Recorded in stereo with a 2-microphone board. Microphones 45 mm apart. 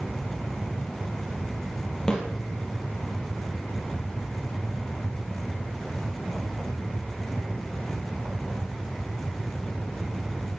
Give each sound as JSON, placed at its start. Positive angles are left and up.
{"t": 2.1, "sound": "a snare drum", "side_deg": 15, "distance_m": 3.5}